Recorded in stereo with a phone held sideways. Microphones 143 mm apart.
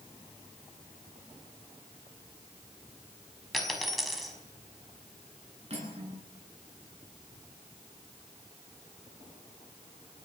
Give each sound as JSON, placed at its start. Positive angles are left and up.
{"t": 3.5, "sound": "a dropped coin", "side_deg": 0, "distance_m": 5.0}
{"t": 5.7, "sound": "cutlery clinking", "side_deg": -45, "distance_m": 10.0}